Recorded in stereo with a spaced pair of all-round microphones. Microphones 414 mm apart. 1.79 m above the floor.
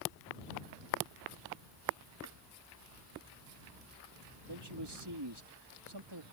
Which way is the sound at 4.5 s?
75° right (ahead or behind).